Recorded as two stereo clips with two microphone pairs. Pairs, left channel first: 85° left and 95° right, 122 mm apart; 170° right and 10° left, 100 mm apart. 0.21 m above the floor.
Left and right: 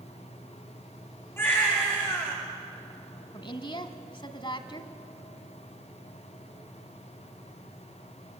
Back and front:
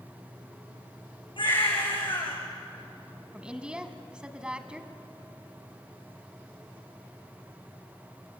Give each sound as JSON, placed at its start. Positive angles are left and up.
{"t": 1.4, "sound": "a baby crying", "azimuth_deg": 155, "distance_m": 8.5}
{"t": 3.3, "sound": "a woman speaking", "azimuth_deg": 85, "distance_m": 1.3}